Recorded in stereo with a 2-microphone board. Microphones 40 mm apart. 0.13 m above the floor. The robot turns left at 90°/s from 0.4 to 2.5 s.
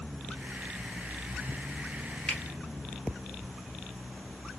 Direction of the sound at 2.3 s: 25° left (ahead or behind).